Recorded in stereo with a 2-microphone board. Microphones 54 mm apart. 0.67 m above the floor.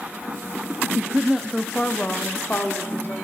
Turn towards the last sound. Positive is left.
turn(degrees=45)  # may be behind; listen again after turning